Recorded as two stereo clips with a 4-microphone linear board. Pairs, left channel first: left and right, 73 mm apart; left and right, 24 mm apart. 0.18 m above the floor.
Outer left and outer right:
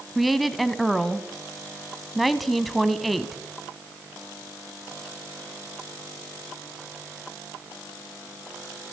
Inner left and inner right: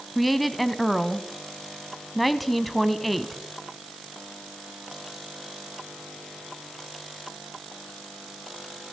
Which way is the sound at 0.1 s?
Centre (ahead or behind).